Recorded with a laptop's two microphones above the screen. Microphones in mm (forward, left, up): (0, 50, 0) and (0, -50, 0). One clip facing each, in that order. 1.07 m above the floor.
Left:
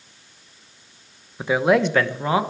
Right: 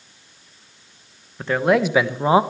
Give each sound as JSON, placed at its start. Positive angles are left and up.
{"t": 1.4, "sound": "a man speaking", "side_deg": 10, "distance_m": 1.0}